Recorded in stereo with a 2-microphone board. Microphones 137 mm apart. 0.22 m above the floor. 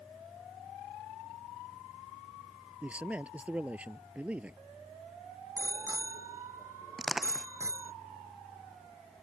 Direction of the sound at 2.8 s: 10° right (ahead or behind).